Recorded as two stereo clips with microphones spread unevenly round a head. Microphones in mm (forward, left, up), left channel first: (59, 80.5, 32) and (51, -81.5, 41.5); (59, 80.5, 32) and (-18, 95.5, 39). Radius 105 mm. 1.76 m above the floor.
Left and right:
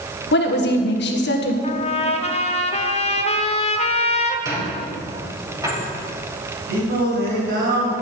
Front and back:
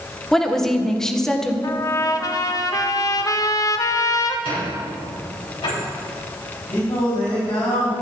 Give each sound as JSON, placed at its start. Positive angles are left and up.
{"t": 0.3, "sound": "a woman speaking", "azimuth_deg": 75, "distance_m": 1.6}
{"t": 1.6, "sound": "a trumpet", "azimuth_deg": 35, "distance_m": 1.0}
{"t": 4.5, "sound": "a squeak", "azimuth_deg": -25, "distance_m": 5.5}
{"t": 6.7, "sound": "singing", "azimuth_deg": -80, "distance_m": 3.5}